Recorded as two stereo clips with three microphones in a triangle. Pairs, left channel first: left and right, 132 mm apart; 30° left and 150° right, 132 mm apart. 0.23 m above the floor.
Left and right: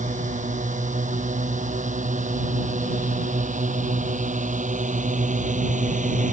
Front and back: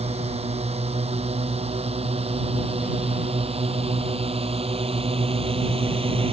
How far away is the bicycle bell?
I don't hear a bicycle bell.